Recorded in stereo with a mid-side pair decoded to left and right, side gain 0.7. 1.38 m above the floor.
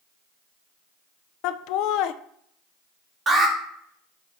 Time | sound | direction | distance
1.4 | laughter | 65° left | 0.5 m
3.3 | an alarm | 20° right | 2 m